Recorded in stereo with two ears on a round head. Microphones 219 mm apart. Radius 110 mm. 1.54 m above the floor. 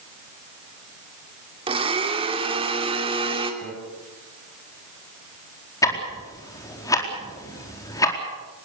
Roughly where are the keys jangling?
I don't hear keys jangling.